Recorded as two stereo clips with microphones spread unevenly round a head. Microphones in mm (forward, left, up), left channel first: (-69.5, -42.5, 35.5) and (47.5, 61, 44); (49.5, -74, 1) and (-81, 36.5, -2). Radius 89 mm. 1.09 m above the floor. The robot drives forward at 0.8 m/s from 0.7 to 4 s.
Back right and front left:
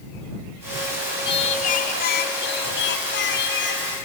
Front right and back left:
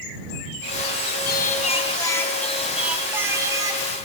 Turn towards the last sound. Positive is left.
turn(degrees=-155)